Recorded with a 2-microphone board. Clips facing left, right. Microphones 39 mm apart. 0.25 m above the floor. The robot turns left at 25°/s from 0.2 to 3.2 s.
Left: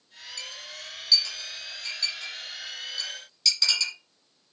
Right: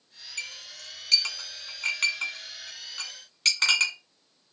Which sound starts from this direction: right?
A clink, at 0.4 s.